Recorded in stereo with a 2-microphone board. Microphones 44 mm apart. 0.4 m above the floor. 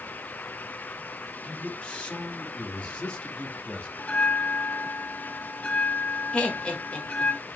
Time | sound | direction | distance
1.4 | a man speaking | 25° left (ahead or behind) | 1.2 m
4.0 | a bell | 35° left (ahead or behind) | 0.9 m
6.3 | laughter | 25° left (ahead or behind) | 1.1 m